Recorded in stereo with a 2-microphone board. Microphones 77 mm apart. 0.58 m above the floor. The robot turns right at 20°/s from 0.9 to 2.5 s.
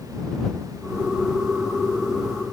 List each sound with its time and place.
Only background noise.